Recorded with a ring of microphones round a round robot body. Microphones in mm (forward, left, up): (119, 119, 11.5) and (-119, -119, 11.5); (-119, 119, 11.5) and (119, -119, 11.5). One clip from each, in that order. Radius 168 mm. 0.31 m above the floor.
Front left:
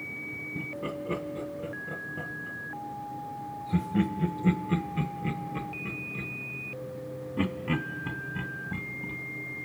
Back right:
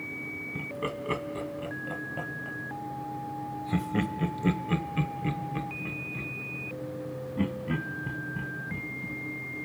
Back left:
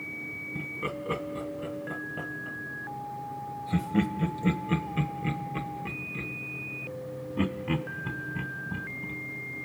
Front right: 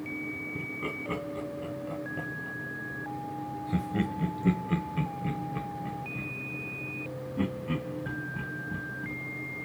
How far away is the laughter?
About 3.5 m.